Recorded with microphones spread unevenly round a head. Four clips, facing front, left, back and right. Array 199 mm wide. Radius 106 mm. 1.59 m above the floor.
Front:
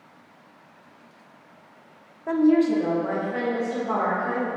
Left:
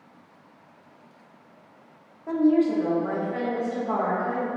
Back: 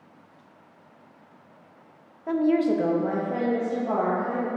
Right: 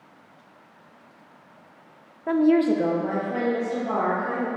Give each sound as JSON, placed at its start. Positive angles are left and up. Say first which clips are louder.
{"t": 2.3, "sound": "a woman speaking", "louder": "right 2 dB, front 3 dB", "azimuth_deg": -65, "distance_m": 0.7}